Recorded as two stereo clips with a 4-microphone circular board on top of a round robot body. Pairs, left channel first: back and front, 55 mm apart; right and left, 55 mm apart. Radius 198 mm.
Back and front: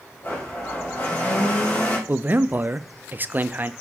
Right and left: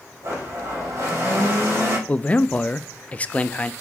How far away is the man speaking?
About 0.8 m.